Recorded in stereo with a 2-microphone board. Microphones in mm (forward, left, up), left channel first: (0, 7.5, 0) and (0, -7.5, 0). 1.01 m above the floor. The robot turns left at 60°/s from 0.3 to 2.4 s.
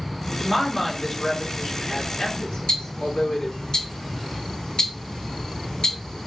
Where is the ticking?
65° left (ahead or behind), 1.8 m.